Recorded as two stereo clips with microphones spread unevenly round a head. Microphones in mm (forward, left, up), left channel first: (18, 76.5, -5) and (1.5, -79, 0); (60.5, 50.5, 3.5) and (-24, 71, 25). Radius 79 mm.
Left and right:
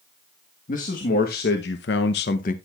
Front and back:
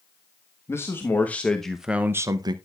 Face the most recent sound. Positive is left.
turn(degrees=125)